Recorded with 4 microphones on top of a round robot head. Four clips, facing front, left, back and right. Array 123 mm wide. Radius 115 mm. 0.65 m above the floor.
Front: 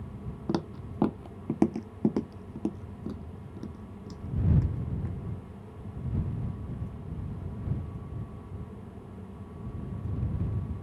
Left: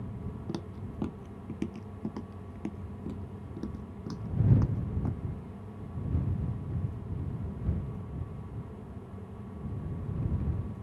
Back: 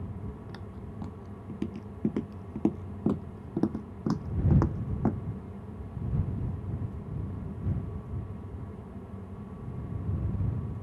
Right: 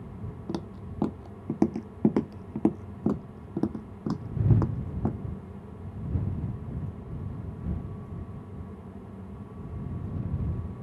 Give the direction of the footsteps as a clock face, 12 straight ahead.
12 o'clock.